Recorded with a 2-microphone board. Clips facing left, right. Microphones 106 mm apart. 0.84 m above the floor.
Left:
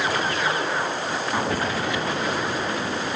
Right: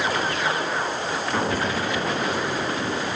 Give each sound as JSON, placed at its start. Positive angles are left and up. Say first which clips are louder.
{"t": 1.3, "sound": "an explosion", "louder": "right 1 dB", "side_deg": 10, "distance_m": 5.5}